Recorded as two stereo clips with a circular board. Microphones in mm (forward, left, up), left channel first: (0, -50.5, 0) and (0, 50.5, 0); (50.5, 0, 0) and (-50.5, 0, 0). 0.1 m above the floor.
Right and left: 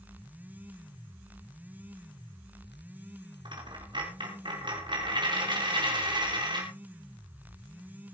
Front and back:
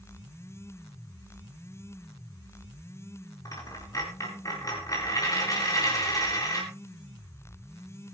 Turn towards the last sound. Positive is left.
turn(degrees=55)